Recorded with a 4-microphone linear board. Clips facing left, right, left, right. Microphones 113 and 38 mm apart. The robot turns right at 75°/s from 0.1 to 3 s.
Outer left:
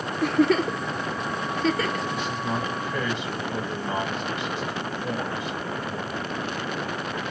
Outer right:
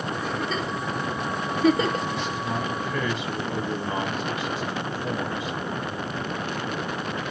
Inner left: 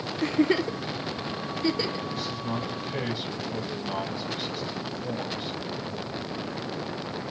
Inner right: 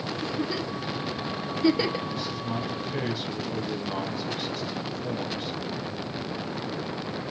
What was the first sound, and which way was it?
A giggle, 70° left (ahead or behind).